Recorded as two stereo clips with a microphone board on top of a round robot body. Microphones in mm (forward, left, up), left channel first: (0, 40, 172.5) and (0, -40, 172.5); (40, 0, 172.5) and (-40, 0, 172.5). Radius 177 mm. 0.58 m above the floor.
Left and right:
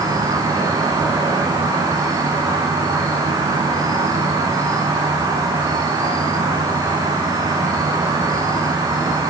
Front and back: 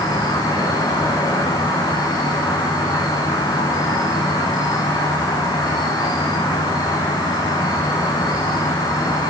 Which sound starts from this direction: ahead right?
An insect, at 0.0 s.